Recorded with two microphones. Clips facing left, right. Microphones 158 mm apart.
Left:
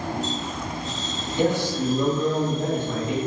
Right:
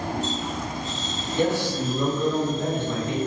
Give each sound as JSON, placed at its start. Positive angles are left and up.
{"t": 1.4, "sound": "a man speaking", "side_deg": 20, "distance_m": 1.2}